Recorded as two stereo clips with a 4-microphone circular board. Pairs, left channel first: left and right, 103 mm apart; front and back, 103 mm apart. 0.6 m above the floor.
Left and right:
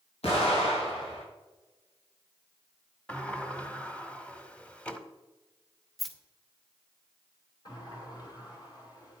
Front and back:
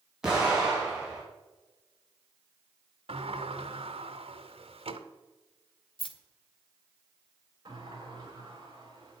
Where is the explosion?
95° left, 4 m.